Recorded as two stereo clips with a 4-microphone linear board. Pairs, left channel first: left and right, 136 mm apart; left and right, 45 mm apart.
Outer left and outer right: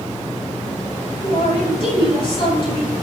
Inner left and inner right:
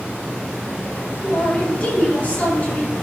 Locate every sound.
1.2 s a man speaking: 35° left (ahead or behind), 5.5 m